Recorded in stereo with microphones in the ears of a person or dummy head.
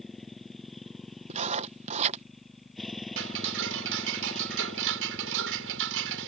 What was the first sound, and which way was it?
A motorcycle, 5° left (ahead or behind).